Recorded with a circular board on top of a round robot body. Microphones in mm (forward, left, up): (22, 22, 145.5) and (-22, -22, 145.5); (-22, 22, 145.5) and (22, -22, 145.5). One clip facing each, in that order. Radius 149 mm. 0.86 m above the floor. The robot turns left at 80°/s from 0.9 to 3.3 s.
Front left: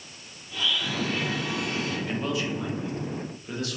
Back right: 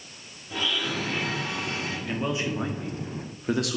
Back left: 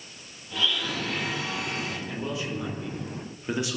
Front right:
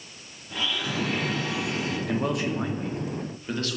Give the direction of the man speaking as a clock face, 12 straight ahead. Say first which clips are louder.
Even, front right 6 dB; 2 o'clock.